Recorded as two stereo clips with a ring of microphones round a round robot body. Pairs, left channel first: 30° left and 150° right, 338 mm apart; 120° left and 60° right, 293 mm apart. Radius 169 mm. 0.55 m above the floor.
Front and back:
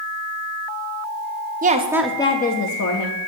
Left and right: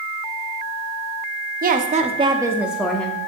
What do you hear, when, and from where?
1.6 s a woman speaking: 100° right, 0.7 m; by 3.2 s 40° left, 0.9 m